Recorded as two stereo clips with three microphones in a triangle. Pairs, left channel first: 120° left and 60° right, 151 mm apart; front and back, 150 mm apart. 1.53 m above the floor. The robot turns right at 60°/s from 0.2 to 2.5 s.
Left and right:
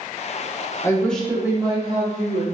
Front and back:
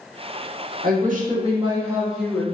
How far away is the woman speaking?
About 1.0 m.